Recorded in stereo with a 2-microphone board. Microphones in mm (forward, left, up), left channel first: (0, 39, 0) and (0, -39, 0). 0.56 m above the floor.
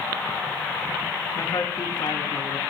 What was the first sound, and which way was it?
A man speaking, 60° left (ahead or behind).